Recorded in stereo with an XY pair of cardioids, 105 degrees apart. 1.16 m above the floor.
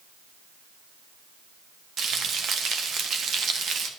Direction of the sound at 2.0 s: 55° right.